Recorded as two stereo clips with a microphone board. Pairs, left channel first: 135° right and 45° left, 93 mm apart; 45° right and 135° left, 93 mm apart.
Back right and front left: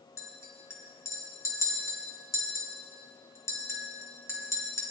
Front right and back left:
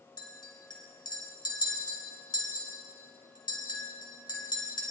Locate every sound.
0.2 s a clink: 80° right, 2.5 m